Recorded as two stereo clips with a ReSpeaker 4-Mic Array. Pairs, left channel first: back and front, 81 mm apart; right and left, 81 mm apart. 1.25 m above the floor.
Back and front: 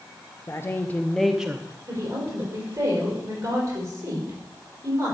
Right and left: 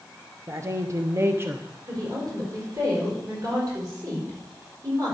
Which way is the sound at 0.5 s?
135° left.